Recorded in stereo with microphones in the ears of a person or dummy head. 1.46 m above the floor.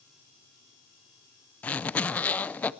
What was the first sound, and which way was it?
A zipper, 10° left (ahead or behind).